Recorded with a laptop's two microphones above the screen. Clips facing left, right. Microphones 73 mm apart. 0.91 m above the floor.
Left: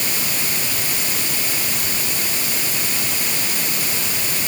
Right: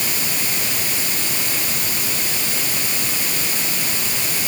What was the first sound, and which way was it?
Only background noise.